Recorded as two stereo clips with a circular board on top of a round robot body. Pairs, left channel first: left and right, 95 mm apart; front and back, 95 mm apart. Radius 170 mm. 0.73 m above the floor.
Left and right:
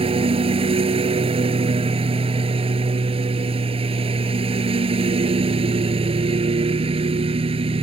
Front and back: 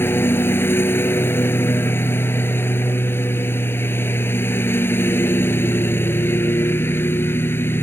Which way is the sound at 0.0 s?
70° right.